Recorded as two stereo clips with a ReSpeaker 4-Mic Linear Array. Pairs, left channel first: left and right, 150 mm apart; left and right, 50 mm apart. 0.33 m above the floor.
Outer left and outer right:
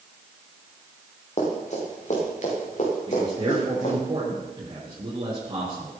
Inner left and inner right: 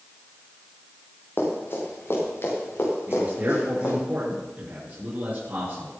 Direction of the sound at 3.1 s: 35° right (ahead or behind).